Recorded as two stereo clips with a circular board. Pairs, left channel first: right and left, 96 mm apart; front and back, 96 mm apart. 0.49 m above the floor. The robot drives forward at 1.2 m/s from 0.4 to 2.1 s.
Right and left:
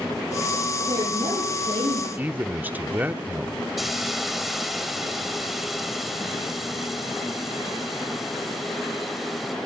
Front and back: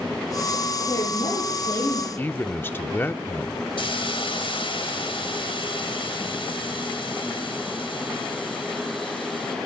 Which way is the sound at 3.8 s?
Straight ahead.